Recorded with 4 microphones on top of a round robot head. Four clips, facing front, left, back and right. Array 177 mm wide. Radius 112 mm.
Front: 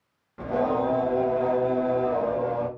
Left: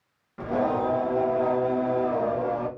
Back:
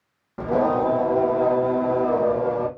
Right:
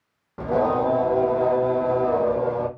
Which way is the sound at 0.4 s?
135° right.